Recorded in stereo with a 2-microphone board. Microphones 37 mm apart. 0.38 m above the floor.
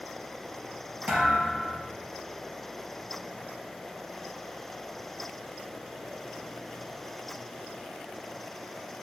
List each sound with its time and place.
1.1 s a thud: 40° right (ahead or behind), 3.5 m